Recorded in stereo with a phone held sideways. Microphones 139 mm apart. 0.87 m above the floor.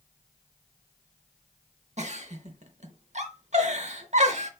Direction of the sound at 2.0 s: 55° right (ahead or behind).